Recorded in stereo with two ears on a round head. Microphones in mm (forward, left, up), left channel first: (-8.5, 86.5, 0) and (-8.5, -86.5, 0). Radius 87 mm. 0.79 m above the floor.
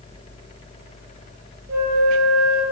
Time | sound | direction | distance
1.7 | a flute | 55° right (ahead or behind) | 7 m